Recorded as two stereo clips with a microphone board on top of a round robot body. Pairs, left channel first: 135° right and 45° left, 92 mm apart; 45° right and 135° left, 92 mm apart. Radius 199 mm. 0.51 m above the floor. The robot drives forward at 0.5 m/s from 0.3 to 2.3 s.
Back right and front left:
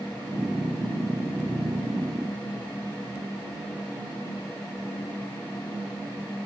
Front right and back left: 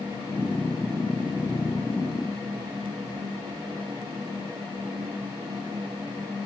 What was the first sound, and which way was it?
Only background noise.